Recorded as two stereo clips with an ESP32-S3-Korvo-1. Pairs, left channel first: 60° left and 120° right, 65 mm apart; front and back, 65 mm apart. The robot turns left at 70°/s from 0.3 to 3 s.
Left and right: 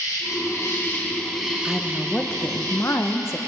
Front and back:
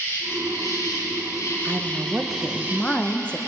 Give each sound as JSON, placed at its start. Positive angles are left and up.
{"t": 0.0, "sound": "an insect", "azimuth_deg": 50, "distance_m": 2.5}
{"t": 1.6, "sound": "a woman speaking", "azimuth_deg": 155, "distance_m": 0.5}